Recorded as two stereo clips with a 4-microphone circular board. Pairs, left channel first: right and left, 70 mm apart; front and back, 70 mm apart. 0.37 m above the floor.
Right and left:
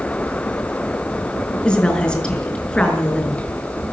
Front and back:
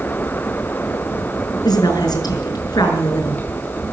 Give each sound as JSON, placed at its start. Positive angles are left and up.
{"t": 1.6, "sound": "a woman speaking", "azimuth_deg": -10, "distance_m": 5.5}